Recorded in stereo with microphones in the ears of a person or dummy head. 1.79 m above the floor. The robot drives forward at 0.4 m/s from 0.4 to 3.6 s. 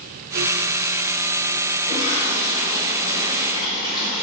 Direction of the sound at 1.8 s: 30° right (ahead or behind).